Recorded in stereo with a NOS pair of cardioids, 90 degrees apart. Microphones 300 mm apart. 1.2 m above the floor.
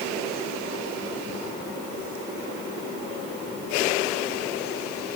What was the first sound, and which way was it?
Only background noise.